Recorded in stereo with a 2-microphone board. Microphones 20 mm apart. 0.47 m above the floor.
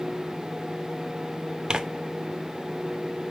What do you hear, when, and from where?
1.7 s tearing paper: 50° right (ahead or behind), 0.6 m